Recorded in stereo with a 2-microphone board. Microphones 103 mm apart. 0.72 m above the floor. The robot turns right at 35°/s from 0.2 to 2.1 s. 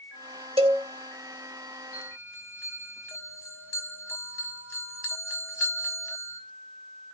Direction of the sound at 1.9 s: 30° left (ahead or behind).